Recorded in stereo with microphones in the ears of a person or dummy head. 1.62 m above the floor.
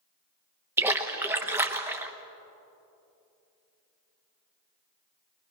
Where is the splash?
10° right (ahead or behind), 1.0 m.